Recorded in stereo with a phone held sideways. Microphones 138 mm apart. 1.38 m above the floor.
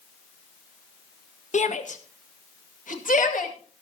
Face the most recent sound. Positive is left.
turn(degrees=70)  # may be behind; listen again after turning